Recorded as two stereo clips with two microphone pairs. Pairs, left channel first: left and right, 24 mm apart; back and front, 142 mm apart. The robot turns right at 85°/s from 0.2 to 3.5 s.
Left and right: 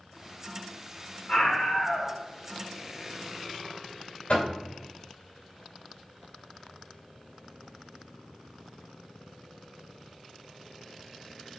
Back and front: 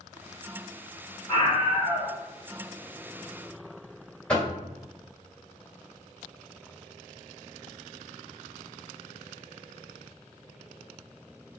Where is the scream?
120° left, 2 m; by 2.1 s 165° right, 2 m.